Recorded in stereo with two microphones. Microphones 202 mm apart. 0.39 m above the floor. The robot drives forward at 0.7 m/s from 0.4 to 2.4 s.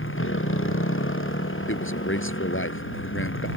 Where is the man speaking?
80° left.